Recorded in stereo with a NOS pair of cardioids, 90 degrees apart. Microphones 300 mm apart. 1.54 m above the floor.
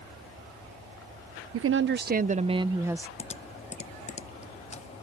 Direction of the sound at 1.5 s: 50° right.